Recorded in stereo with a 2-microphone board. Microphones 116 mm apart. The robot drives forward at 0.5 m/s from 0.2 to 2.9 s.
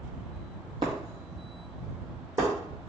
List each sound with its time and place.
0.8 s breaking glass: 40° right (ahead or behind), 1.3 m; by 2.5 s 25° right (ahead or behind), 2 m